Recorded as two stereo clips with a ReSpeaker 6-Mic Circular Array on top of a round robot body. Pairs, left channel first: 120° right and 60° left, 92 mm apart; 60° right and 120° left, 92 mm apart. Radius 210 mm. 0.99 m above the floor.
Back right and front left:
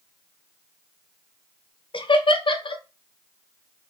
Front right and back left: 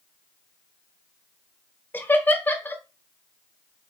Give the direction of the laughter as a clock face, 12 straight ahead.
4 o'clock.